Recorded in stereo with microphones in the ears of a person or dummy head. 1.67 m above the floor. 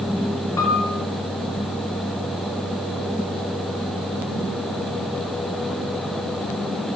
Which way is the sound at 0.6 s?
15° left (ahead or behind).